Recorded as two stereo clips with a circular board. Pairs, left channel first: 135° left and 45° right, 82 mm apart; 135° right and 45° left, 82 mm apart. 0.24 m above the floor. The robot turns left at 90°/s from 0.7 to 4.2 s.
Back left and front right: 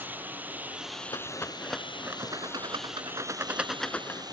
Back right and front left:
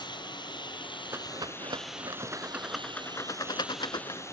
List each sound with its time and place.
0.0 s a lawn mower: 115° right; by 4.3 s 80° right
1.1 s a rattle: 105° left; by 4.2 s 175° right